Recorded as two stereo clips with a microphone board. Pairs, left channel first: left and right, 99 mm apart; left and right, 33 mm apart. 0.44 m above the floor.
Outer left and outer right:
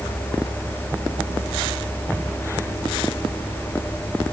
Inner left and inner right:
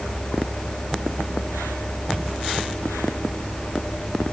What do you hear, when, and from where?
Only background noise.